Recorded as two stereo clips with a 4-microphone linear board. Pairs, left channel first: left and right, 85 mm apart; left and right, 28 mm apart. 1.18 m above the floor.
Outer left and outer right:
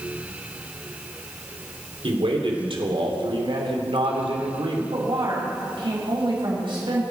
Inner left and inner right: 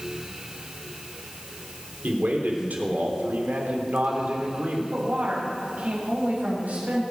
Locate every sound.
2.0 s a man speaking: 85° right, 3 m
4.9 s a woman speaking: 70° right (ahead or behind), 8 m